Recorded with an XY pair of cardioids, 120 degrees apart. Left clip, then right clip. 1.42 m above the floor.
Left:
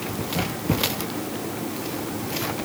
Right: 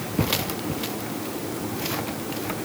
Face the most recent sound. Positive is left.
No sound to turn to.